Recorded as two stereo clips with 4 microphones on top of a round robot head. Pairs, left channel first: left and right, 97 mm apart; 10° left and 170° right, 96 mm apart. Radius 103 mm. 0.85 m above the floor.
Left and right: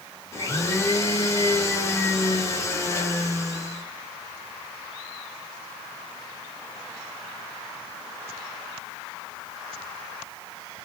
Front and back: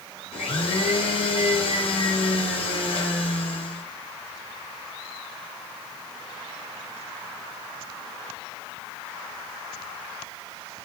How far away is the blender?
About 2.5 m.